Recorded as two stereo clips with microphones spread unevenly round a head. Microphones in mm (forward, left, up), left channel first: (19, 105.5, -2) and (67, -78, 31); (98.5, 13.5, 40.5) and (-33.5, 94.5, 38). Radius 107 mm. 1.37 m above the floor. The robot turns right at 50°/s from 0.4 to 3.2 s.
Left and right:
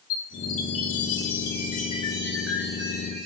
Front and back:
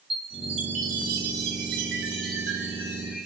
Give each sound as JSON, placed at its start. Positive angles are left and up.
{"t": 0.1, "sound": "a chime", "azimuth_deg": 95, "distance_m": 3.0}